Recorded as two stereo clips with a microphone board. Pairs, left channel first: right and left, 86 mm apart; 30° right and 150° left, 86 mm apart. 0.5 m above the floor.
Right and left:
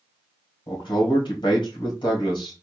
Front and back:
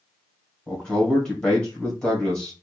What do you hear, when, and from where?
0.7 s a man speaking: 110° right, 2.5 m